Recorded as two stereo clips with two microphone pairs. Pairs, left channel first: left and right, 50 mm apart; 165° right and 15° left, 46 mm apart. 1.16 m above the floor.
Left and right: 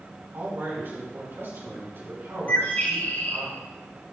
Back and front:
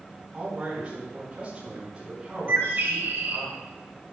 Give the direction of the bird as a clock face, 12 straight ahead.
11 o'clock.